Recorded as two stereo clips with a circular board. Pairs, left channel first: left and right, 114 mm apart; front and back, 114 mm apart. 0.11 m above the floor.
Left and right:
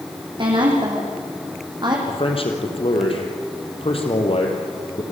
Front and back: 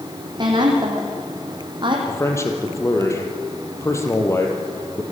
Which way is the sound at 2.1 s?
65° left.